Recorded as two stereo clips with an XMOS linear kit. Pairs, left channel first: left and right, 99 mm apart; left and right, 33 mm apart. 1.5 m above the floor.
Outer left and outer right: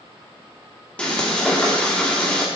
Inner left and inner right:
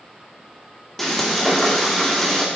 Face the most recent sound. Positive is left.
turn(degrees=10)  # may be behind; listen again after turning